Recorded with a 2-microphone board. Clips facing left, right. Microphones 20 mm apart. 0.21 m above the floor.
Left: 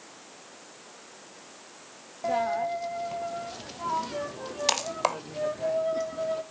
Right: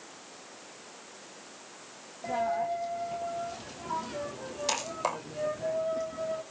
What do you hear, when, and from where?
2.2 s a dropped coin: 35° left (ahead or behind), 1.3 m